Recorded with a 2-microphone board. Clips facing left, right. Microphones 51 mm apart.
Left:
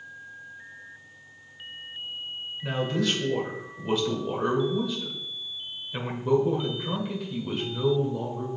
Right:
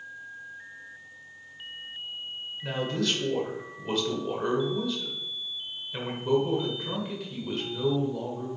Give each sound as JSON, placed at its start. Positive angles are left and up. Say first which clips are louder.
{"t": 2.6, "sound": "a man speaking", "louder": "left 2 dB", "side_deg": 5, "distance_m": 1.6}